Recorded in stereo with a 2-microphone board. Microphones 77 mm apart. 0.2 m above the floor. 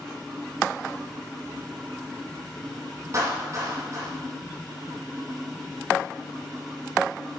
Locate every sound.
3.1 s a clap: 35° right (ahead or behind), 6.5 m